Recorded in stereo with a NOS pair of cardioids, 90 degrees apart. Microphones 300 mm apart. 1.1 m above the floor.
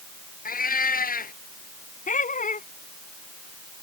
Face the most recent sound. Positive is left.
turn(degrees=25)